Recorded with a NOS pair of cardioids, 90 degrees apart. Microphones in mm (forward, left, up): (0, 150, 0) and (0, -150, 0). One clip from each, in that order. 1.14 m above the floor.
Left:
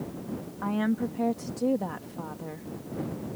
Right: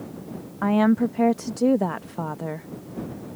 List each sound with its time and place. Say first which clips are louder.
0.6 s a woman speaking: right 9 dB; 45° right